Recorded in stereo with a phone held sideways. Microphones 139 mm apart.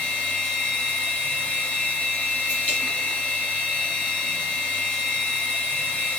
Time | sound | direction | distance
0.0 | a machine running | 10° left (ahead or behind) | 1.5 m